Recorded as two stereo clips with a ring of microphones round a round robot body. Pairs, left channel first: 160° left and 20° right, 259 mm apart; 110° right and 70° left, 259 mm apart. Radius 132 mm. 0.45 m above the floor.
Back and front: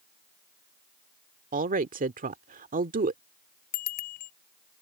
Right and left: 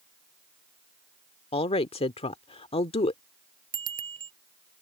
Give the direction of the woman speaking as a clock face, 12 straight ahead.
2 o'clock.